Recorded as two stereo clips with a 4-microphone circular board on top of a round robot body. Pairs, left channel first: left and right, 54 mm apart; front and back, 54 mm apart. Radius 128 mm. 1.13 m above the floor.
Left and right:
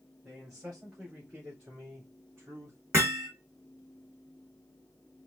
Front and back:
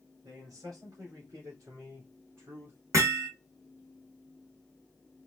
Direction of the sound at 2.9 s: 145° right.